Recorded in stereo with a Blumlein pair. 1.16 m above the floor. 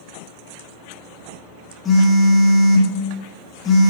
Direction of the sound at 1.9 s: 15° left.